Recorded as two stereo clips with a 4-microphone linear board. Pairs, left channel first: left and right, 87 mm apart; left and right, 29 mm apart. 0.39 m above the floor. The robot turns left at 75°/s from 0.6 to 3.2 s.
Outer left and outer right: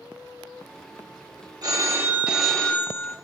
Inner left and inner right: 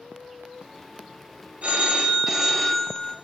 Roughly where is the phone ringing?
Behind right.